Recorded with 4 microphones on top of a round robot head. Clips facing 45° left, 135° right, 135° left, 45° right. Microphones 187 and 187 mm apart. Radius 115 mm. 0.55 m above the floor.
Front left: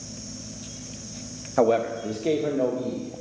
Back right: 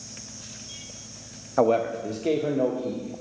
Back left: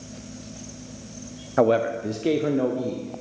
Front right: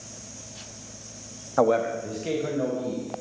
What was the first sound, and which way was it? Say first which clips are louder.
A man speaking: front left 1 dB, back left 2 dB; 115° left.